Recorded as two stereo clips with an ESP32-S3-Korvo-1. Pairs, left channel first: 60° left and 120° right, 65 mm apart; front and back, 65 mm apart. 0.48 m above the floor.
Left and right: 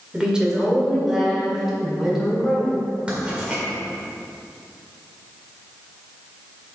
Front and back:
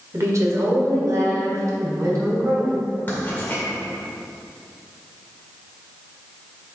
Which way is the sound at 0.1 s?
170° left.